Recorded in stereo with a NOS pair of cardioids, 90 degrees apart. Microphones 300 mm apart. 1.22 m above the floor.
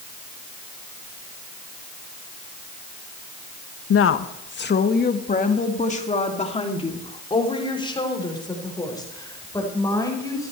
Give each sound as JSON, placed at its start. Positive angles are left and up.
{"t": 3.9, "sound": "a woman speaking", "azimuth_deg": 50, "distance_m": 1.2}